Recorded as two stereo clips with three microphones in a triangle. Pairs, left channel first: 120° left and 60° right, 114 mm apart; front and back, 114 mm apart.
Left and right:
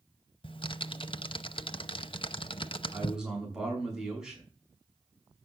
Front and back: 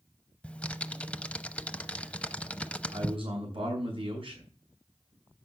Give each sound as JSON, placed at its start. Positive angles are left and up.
{"t": 0.4, "sound": "typing on a keyboard", "azimuth_deg": 80, "distance_m": 0.7}
{"t": 2.9, "sound": "a man speaking", "azimuth_deg": -145, "distance_m": 5.0}